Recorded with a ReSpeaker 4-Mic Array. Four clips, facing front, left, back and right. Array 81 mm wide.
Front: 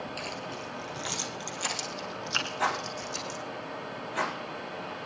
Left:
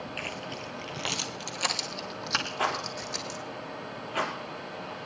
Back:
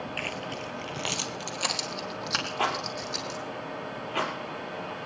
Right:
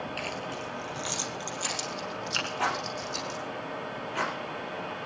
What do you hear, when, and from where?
0.2 s keys jangling: straight behind, 1.4 m; by 3.4 s 125° left, 4 m
2.6 s a rattle: 170° left, 3.5 m